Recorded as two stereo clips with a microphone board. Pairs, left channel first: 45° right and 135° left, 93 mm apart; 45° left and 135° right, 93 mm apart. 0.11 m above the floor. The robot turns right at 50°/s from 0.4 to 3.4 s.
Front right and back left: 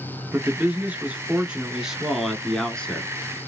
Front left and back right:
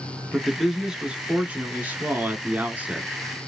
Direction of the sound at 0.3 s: 135° left.